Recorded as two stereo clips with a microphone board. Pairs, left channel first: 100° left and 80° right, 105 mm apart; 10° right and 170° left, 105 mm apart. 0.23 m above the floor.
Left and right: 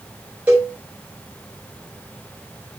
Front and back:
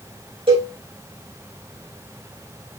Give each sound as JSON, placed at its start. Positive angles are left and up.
{"t": 0.5, "sound": "a cowbell", "azimuth_deg": -155, "distance_m": 4.0}